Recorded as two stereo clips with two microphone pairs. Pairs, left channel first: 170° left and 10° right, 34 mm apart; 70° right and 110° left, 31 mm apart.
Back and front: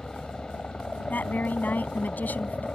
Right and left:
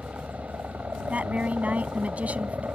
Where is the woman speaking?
145° left.